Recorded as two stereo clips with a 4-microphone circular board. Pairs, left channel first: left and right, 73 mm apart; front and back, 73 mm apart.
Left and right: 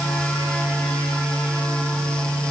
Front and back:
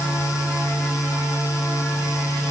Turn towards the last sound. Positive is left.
No sound to turn to.